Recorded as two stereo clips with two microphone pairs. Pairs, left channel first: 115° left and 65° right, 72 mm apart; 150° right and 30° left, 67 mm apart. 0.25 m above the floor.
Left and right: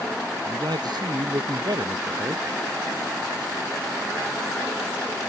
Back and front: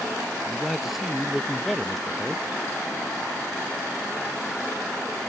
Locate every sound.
0.5 s a man speaking: 55° right; by 2.5 s 65° right